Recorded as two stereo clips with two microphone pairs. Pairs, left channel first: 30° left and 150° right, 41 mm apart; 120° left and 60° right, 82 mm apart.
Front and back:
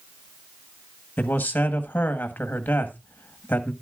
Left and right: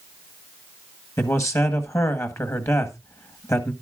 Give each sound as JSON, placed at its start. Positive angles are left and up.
{"t": 1.2, "sound": "a man speaking", "azimuth_deg": 70, "distance_m": 1.3}